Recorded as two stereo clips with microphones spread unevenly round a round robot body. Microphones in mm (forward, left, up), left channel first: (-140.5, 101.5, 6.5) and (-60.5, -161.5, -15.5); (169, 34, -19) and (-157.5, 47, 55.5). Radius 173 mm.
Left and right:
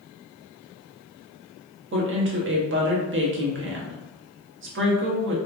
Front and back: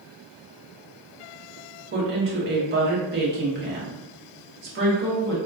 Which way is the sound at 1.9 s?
115° right.